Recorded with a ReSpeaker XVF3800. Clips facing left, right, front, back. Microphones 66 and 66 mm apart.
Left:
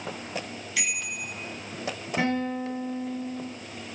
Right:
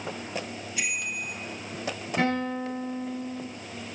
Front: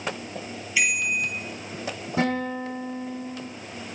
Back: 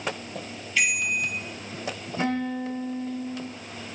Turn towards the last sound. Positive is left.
turn(degrees=5)